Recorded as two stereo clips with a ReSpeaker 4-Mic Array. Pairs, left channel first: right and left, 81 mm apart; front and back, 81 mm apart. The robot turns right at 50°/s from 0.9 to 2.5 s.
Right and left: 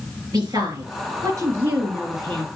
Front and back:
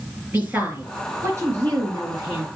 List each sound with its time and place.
0.3 s a woman speaking: 115° left, 4 m; by 2.5 s 170° right, 4 m